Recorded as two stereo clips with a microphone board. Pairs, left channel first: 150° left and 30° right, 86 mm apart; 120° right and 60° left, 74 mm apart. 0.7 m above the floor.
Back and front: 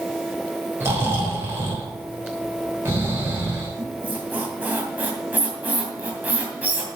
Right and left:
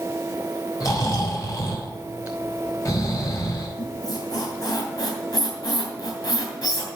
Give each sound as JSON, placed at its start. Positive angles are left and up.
{"t": 0.8, "sound": "snoring", "azimuth_deg": -90, "distance_m": 3.0}
{"t": 3.8, "sound": "a squeak", "azimuth_deg": -100, "distance_m": 2.5}